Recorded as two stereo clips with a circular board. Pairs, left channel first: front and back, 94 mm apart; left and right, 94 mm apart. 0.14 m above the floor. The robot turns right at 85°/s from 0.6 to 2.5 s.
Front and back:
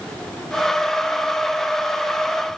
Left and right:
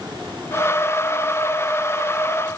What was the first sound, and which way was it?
Only background noise.